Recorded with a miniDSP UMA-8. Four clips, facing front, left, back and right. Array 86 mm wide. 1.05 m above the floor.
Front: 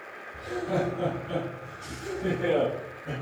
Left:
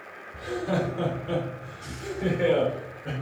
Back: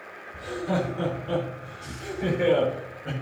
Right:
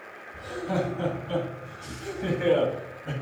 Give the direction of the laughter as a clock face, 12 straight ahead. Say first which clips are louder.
Left 1 dB, back 1 dB; 8 o'clock.